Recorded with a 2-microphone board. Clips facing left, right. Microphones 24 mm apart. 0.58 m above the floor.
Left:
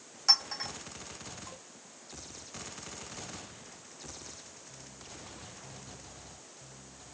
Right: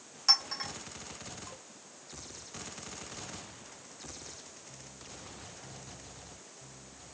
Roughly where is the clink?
Centre.